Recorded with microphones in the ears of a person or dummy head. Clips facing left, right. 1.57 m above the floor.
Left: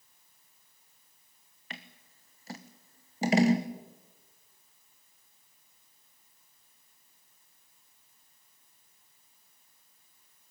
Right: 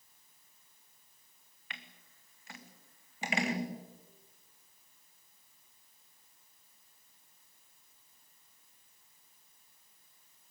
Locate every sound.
1.7 s scissors: 35° left (ahead or behind), 1.2 m